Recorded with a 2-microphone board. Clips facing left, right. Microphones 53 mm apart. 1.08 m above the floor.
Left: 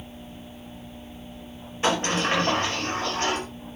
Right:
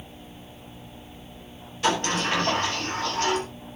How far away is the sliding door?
About 5 m.